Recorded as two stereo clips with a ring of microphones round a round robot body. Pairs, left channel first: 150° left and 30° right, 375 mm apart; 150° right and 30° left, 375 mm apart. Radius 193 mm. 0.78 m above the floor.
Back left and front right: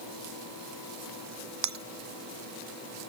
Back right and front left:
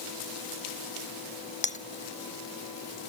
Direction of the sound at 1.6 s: 80° right.